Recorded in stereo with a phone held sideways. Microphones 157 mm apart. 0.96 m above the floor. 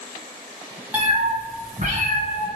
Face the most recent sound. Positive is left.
turn(degrees=-60)  # may be behind; listen again after turning